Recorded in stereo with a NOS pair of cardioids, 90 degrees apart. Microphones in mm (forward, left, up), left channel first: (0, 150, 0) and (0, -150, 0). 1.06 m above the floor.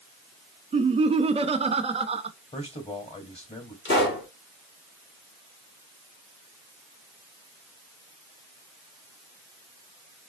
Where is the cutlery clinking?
I don't hear cutlery clinking.